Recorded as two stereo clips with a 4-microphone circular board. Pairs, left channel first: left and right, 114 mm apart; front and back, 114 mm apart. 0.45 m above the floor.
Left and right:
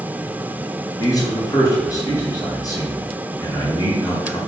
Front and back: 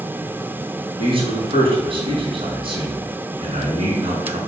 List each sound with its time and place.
1.0 s a man speaking: 145° left, 3.5 m